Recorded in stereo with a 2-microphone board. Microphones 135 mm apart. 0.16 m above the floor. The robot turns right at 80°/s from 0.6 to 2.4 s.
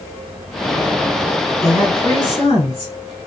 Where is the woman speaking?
35° left, 1.3 m; by 2.9 s 95° left, 1.3 m.